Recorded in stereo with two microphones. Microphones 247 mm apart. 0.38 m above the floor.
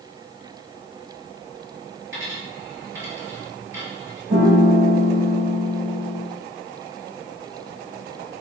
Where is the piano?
65° right (ahead or behind), 4 m.